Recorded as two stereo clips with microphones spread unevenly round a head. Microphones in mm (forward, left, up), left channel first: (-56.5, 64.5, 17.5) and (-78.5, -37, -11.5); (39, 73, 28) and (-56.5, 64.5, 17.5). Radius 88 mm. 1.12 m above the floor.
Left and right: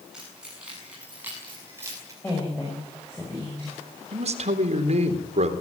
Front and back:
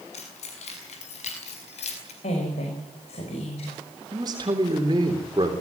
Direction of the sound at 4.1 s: 110° right.